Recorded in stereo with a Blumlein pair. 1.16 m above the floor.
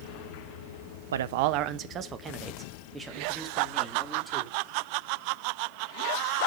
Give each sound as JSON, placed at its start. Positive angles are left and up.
{"t": 1.1, "sound": "a man speaking", "azimuth_deg": -65, "distance_m": 0.6}